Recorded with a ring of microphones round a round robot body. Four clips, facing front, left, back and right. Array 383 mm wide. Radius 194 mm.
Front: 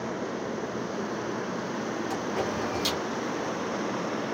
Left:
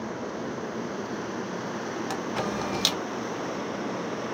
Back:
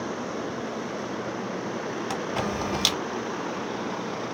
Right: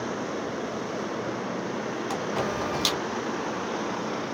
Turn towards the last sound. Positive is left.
turn(degrees=155)